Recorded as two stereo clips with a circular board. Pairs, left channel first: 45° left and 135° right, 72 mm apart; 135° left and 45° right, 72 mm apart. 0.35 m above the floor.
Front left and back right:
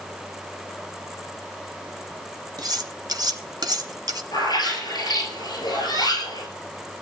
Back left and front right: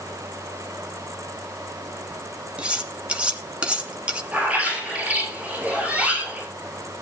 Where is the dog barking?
No dog barking in this recording.